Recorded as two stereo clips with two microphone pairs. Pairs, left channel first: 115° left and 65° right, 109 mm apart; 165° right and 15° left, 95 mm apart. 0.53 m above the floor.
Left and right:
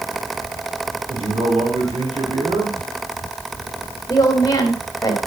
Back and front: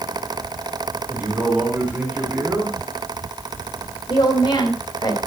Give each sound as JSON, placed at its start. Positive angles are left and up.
{"t": 1.1, "sound": "a man speaking", "azimuth_deg": -55, "distance_m": 4.0}
{"t": 4.1, "sound": "a woman speaking", "azimuth_deg": 165, "distance_m": 3.0}